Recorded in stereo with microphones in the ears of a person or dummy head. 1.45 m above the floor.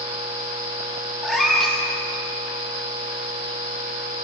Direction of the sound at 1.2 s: Centre (ahead or behind).